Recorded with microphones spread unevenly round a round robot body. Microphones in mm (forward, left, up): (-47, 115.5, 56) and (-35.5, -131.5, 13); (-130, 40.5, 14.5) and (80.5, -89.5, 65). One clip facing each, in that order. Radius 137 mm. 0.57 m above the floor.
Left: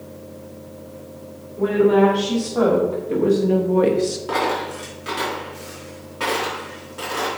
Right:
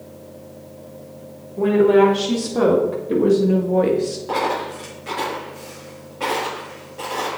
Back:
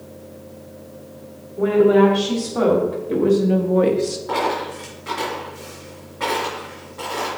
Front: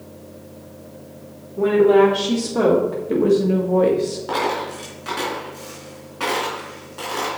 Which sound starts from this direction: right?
A woman speaking, at 1.6 s.